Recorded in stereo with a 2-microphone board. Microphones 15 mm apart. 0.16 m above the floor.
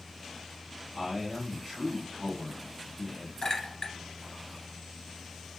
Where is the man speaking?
Centre (ahead or behind), 1.3 m.